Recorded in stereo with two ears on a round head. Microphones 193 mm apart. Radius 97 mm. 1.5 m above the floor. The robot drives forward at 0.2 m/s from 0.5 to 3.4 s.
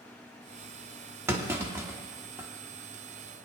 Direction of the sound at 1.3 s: 15° right (ahead or behind).